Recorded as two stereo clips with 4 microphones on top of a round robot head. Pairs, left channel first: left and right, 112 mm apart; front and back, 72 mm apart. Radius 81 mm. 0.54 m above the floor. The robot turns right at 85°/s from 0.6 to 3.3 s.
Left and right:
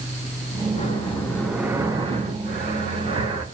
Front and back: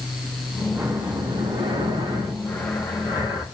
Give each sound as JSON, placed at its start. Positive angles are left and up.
{"t": 0.7, "sound": "breathing", "azimuth_deg": 110, "distance_m": 5.0}